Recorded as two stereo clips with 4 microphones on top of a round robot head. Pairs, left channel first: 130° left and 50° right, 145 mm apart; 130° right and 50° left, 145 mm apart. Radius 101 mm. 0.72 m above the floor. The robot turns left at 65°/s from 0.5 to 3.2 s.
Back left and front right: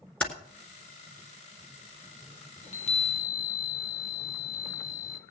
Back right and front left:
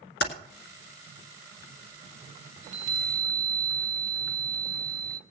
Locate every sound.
0.2 s typing on a keyboard: 145° right, 1.6 m
2.6 s a chime: 100° left, 0.8 m; by 5.2 s 60° left, 0.8 m